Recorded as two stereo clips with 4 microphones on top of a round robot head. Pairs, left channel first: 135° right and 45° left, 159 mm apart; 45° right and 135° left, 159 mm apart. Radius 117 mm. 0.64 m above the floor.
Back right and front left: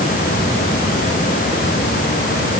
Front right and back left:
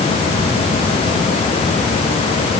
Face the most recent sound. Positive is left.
No sound to turn to.